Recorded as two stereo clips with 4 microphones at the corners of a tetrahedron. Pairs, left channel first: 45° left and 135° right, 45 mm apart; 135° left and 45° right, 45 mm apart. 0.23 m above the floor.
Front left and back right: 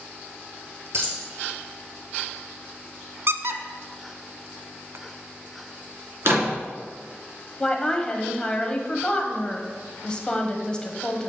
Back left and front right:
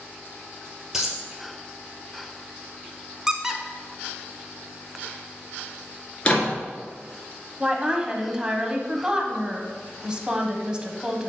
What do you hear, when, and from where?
0.9 s a dropped coin: 125° right, 2 m
3.3 s a squeak: 120° right, 0.6 m
6.2 s a door slam: 160° right, 2.5 m
7.6 s a woman speaking: straight ahead, 1.0 m